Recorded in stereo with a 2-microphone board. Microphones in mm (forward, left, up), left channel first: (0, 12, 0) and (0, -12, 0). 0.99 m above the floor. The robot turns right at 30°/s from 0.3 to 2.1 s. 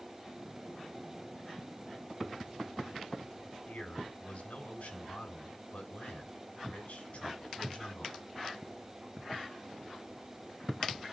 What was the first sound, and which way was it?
A man speaking, 85° left.